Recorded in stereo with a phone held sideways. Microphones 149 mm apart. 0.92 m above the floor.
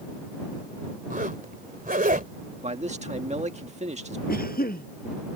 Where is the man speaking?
50° right (ahead or behind).